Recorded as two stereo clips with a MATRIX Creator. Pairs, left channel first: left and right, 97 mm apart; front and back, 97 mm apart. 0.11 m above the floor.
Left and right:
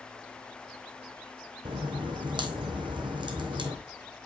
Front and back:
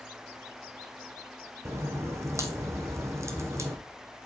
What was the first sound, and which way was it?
A crack, 120° right.